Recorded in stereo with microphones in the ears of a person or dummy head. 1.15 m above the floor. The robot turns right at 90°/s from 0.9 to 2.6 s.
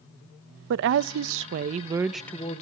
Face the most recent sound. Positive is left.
turn(degrees=35)